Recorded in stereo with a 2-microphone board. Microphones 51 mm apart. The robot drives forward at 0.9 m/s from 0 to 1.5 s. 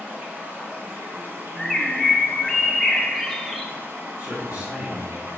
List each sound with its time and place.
0.0 s running water: 25° right (ahead or behind), 3 m; by 5.4 s 45° right (ahead or behind), 2.0 m
1.6 s a bird: 5° left (ahead or behind), 0.8 m
4.2 s a man speaking: 30° right (ahead or behind), 1.7 m